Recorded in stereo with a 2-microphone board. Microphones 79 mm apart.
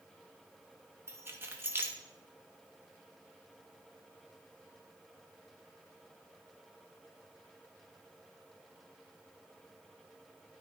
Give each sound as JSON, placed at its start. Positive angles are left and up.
{"t": 1.1, "sound": "keys jangling", "side_deg": -30, "distance_m": 1.1}